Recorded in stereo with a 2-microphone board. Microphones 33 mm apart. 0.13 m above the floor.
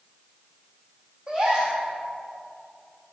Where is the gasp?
25° right (ahead or behind), 2 m.